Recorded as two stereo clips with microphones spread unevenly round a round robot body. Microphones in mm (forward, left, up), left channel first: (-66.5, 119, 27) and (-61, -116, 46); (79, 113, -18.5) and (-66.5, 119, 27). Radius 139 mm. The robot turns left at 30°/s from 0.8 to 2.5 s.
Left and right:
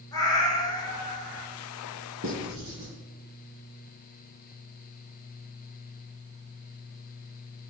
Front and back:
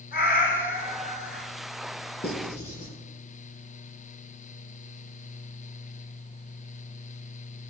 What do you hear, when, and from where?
0.1 s a cat meowing: 15° left, 2 m; by 1.5 s 5° right, 2 m
2.2 s writing: 40° right, 3 m; by 2.9 s 50° right, 3 m